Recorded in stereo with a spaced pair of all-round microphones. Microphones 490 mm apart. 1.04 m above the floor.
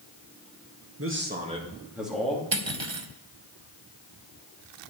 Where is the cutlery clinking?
65° right (ahead or behind), 0.9 m.